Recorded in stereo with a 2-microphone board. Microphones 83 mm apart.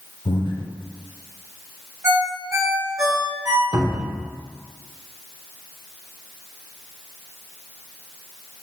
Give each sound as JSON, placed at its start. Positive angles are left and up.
{"t": 0.2, "sound": "breathing", "side_deg": 75, "distance_m": 0.5}
{"t": 2.0, "sound": "a ringtone", "side_deg": -35, "distance_m": 1.4}
{"t": 3.7, "sound": "a cupboard door", "side_deg": -65, "distance_m": 0.7}